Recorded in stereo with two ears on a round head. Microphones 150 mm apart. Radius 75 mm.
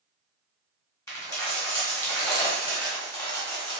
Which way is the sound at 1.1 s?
20° left (ahead or behind).